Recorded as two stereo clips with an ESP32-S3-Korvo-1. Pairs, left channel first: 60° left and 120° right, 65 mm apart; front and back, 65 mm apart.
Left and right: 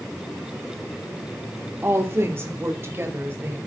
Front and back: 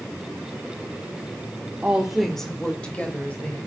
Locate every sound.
1.8 s a woman speaking: 125° right, 1.2 m; by 3.6 s 65° right, 3 m